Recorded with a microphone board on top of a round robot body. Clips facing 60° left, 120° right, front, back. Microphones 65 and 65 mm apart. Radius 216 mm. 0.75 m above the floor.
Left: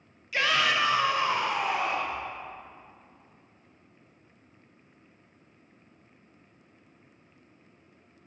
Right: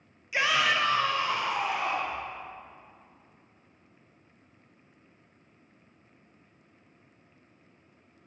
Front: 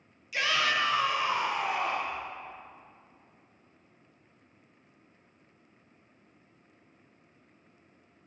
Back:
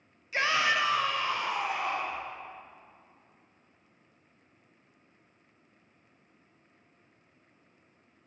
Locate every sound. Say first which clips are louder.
0.3 s a shout: even, back 1 dB; 175° left, 1.1 m; by 2.2 s 25° left, 1.5 m